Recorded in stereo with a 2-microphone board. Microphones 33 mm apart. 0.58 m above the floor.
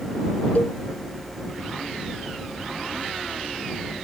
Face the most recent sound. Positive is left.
turn(degrees=60)  # may be behind; listen again after turning